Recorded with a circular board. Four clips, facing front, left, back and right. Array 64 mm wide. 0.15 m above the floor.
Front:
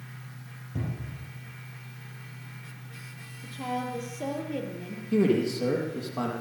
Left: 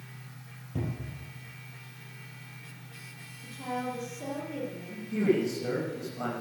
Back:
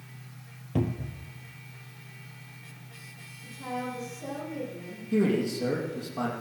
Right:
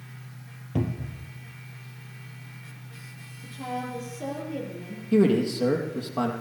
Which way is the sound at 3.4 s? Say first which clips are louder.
Right 1 dB, front 2 dB; 15° right.